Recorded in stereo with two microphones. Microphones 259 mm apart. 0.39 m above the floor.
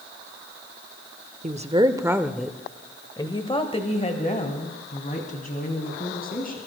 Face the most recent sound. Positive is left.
turn(degrees=35)  # may be behind; listen again after turning